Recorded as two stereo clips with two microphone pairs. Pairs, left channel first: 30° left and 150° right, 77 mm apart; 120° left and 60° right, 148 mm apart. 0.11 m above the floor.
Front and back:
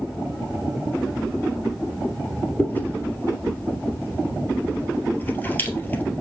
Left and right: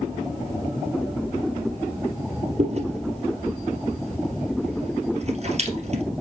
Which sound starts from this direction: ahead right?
Chewing, at 2.6 s.